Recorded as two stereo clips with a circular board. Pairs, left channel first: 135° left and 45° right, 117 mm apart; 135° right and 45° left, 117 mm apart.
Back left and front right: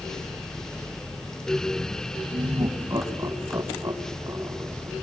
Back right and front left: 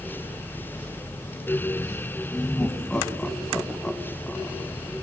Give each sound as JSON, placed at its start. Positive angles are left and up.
{"t": 2.3, "sound": "laughter", "azimuth_deg": -60, "distance_m": 1.5}